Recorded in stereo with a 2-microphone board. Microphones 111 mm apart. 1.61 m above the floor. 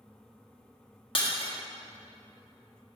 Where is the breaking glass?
50° left (ahead or behind), 1.5 m.